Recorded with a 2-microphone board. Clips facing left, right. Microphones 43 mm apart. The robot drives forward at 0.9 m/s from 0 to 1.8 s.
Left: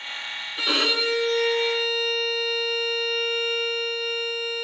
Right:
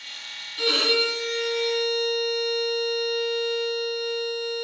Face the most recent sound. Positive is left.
turn(degrees=20)  # may be behind; listen again after turning